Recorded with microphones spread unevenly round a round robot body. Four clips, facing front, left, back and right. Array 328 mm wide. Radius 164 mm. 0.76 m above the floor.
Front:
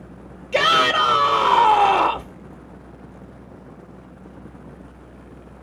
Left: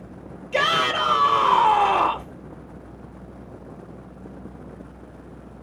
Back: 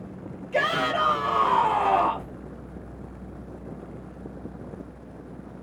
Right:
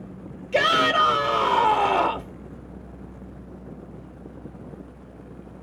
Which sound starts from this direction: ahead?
A shout, at 0.5 s.